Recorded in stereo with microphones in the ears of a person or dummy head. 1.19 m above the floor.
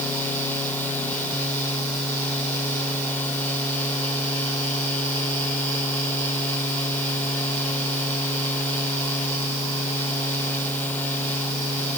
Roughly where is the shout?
I don't hear a shout.